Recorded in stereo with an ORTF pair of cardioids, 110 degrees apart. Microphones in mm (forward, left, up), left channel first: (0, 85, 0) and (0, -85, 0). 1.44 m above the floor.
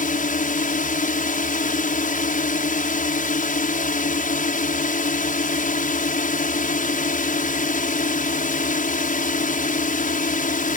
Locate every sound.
0.0 s a drone: 55° left